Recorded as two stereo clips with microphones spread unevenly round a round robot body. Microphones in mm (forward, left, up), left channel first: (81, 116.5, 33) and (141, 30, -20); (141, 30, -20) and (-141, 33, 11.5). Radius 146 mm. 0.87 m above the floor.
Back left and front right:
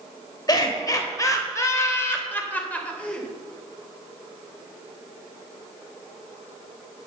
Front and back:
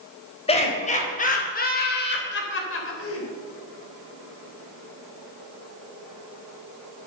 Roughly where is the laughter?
Left.